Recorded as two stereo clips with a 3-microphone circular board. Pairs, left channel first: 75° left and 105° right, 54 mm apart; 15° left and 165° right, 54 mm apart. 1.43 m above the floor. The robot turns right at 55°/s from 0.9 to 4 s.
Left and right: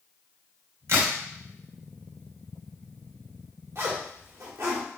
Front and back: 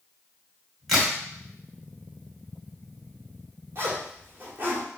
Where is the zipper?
135° right, 1.7 m; by 4.9 s 120° right, 1.7 m.